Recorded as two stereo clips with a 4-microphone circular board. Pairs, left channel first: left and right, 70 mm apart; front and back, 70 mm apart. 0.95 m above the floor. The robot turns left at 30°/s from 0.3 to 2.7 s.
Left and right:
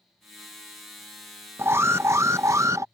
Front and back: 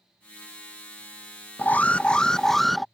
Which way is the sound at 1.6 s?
55° right.